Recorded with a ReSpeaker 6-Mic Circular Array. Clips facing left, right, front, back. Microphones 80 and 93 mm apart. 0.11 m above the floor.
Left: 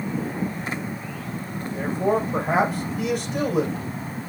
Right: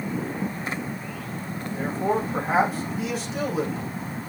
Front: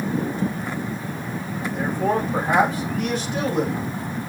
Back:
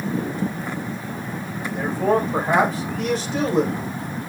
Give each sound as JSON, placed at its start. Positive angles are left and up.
{"t": 1.7, "sound": "a man speaking", "azimuth_deg": 120, "distance_m": 4.0}